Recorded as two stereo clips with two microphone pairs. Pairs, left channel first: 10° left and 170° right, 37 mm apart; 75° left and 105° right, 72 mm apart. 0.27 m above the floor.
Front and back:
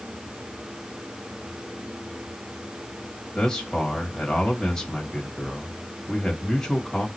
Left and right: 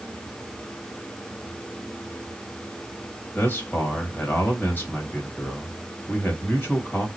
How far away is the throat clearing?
No throat clearing in this recording.